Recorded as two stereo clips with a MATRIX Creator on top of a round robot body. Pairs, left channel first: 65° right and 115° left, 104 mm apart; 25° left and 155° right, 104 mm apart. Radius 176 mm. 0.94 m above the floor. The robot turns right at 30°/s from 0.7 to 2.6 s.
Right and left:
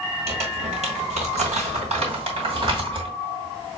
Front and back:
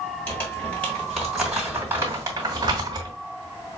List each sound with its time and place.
0.3 s crumpling: 95° left, 2 m; by 3.1 s 155° left, 2 m